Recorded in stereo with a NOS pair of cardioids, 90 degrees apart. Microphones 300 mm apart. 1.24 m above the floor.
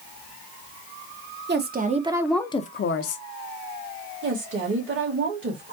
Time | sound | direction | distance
1.5 | a woman speaking | 35° right | 1.2 m
4.2 | a woman speaking | 40° right | 2.0 m